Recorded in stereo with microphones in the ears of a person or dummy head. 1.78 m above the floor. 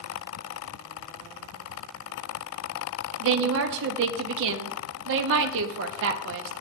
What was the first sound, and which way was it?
A woman speaking, 65° right (ahead or behind).